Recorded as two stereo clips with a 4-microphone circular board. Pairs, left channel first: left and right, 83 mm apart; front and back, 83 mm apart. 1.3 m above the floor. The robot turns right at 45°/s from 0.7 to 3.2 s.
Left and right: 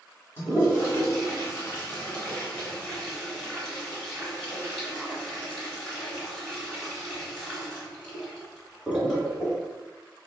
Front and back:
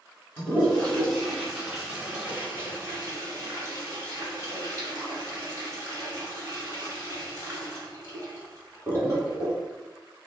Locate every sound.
0.4 s a toilet flushing: 60° left, 1.3 m; by 9.6 s 175° left, 1.3 m